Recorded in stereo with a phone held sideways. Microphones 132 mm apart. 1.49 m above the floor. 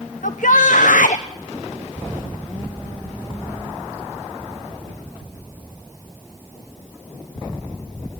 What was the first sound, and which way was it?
A shout, 75° left (ahead or behind).